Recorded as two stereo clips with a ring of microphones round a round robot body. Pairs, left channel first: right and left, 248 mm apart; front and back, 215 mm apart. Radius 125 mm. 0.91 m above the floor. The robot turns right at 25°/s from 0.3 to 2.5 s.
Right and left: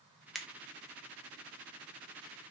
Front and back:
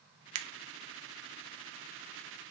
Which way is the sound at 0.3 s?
Straight behind.